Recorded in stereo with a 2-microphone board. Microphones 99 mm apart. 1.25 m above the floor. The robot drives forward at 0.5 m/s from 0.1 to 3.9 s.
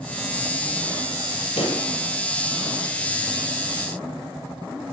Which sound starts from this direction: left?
A pop, at 1.6 s.